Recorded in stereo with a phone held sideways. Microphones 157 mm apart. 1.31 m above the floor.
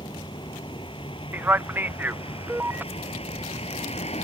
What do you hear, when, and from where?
0.0 s a vehicle: 30° left (ahead or behind); by 4.2 s 40° left (ahead or behind)
1.3 s a man speaking: 10° right (ahead or behind)